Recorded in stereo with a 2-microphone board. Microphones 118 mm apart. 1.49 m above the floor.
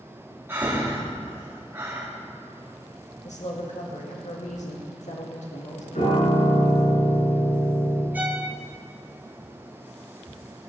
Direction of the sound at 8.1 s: 15° right (ahead or behind).